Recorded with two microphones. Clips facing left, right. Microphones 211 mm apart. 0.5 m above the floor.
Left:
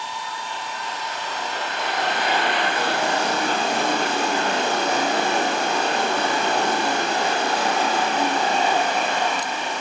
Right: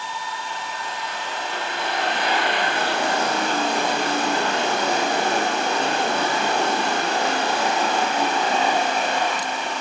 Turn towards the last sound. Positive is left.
No sound to turn to.